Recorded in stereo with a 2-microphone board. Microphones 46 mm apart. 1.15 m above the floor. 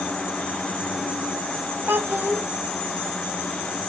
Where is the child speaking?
50° right (ahead or behind), 0.7 m.